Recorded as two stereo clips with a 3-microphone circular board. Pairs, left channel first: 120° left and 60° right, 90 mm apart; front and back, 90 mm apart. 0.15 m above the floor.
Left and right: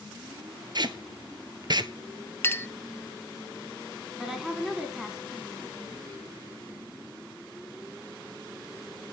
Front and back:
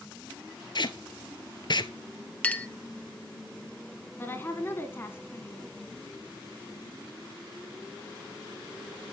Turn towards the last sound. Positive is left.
turn(degrees=15)